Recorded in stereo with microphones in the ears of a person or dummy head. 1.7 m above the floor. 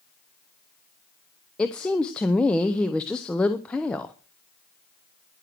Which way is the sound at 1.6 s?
10° left (ahead or behind).